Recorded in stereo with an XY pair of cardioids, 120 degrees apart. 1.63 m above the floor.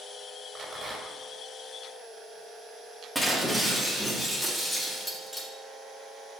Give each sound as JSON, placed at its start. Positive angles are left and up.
{"t": 0.6, "sound": "a rattle", "azimuth_deg": -30, "distance_m": 3.5}
{"t": 3.1, "sound": "breaking glass", "azimuth_deg": 5, "distance_m": 2.5}